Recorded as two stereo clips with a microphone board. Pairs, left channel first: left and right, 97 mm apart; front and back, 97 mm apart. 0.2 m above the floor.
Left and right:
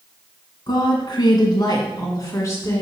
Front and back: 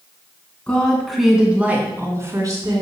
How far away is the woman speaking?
About 2.5 m.